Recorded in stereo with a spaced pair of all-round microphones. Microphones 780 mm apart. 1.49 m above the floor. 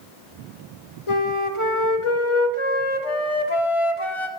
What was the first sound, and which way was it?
A flute, 45° left (ahead or behind).